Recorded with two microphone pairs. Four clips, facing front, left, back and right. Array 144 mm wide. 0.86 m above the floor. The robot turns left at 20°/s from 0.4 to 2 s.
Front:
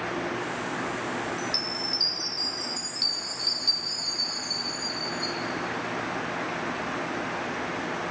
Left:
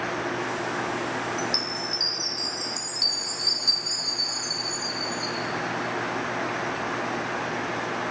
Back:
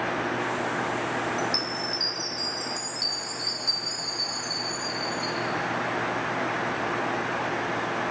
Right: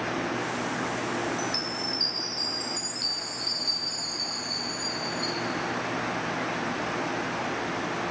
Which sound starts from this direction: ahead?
A chime, at 1.4 s.